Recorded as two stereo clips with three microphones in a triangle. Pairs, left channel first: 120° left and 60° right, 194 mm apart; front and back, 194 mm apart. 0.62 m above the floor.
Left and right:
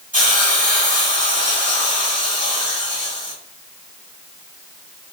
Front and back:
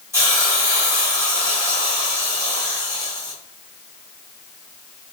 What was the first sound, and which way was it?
A hiss, 105° right.